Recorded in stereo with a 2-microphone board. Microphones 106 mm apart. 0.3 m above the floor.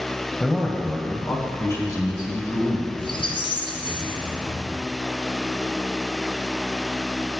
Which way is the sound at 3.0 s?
55° left (ahead or behind).